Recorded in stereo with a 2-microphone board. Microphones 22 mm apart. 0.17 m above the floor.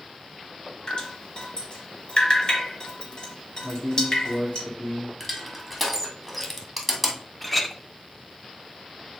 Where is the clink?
5° left (ahead or behind), 0.7 m.